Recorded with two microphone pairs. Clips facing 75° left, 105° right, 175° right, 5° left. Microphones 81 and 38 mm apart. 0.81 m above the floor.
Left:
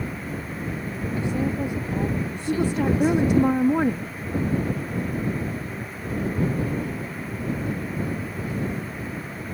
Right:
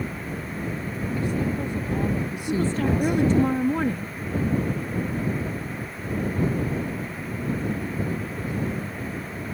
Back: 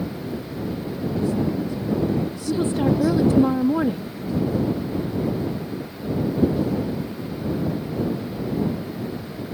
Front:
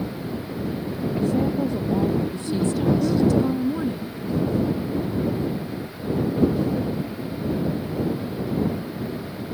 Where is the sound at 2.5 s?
150° left.